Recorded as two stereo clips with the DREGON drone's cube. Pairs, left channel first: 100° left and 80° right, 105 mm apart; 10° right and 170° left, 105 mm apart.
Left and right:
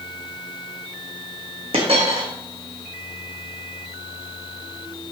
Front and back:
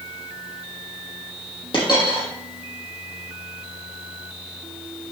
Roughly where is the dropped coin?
Ahead right.